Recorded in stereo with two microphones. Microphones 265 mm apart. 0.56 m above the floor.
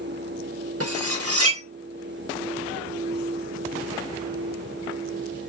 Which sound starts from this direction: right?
Cutlery clinking, at 0.8 s.